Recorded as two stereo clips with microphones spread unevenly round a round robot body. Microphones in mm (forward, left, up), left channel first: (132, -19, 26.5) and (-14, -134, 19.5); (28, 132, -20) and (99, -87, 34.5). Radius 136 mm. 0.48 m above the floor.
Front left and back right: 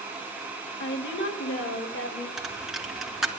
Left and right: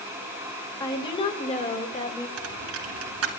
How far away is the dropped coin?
About 2 m.